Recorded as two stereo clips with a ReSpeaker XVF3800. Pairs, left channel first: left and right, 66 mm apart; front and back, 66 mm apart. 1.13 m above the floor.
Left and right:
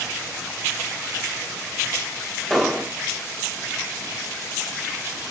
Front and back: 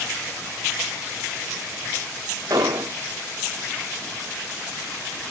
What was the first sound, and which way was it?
An explosion, 175° left.